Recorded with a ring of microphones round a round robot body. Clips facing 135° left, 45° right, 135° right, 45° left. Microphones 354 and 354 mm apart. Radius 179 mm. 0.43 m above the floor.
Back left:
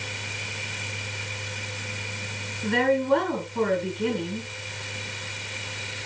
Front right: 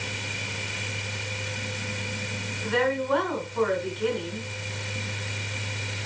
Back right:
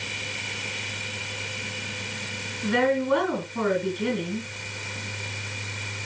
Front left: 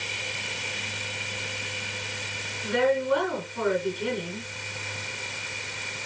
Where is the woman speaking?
170° right, 6.5 m.